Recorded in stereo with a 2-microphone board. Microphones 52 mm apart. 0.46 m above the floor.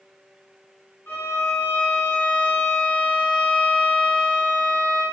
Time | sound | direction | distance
1.1 | a violin | 40° left (ahead or behind) | 0.8 m